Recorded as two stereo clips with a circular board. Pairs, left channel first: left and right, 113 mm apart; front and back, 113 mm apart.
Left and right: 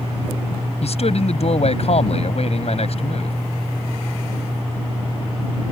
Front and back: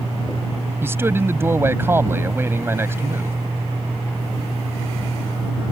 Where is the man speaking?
110° left.